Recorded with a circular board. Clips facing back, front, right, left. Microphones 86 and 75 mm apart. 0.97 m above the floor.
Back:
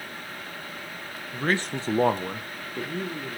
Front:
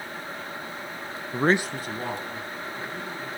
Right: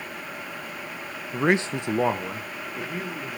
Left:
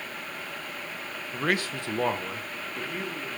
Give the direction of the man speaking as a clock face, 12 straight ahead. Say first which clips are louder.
Front 4 dB, right 6 dB; 1 o'clock.